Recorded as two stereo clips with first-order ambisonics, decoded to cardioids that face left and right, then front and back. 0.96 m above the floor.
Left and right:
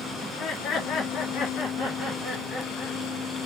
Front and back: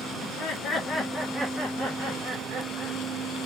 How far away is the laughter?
About 0.9 m.